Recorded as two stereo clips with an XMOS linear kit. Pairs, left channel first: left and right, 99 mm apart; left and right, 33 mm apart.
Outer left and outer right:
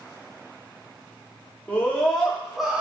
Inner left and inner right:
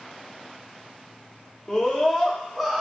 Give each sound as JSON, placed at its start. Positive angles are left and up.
{"t": 1.7, "sound": "a scream", "side_deg": 15, "distance_m": 1.3}